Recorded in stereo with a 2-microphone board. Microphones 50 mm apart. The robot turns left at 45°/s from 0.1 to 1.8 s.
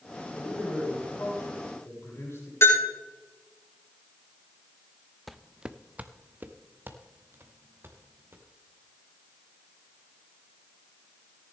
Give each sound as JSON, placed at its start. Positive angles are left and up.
{"t": 0.3, "sound": "a man speaking", "azimuth_deg": 145, "distance_m": 6.5}
{"t": 2.6, "sound": "a bell", "side_deg": 75, "distance_m": 6.0}
{"t": 5.3, "sound": "footsteps", "side_deg": 0, "distance_m": 0.5}